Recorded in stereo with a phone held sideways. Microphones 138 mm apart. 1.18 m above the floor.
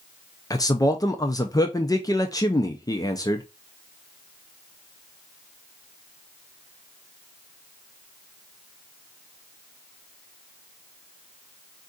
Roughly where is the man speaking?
Left.